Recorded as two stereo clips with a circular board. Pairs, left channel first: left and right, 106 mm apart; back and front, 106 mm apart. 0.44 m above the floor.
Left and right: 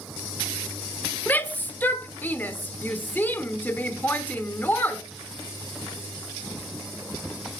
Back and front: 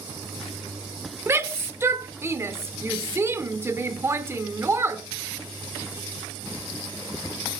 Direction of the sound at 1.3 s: 35° left.